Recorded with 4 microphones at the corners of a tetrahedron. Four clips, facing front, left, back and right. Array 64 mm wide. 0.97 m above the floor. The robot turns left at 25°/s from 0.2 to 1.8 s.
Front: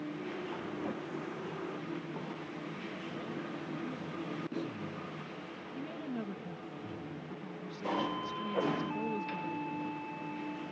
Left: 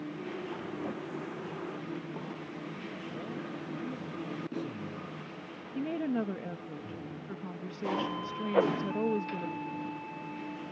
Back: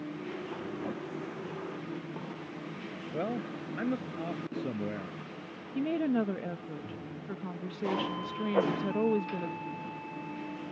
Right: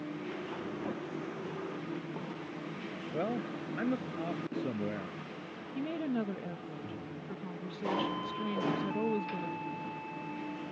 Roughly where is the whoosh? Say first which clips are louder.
Left 8 dB, back 5 dB; behind left.